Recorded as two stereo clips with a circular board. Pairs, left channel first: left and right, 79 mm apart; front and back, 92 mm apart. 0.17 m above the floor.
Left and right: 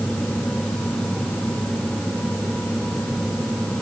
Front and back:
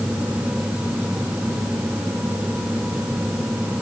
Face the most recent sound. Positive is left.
No sound to turn to.